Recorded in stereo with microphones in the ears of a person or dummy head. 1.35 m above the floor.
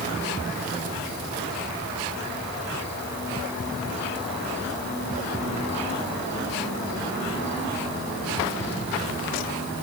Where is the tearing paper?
No tearing paper in this recording.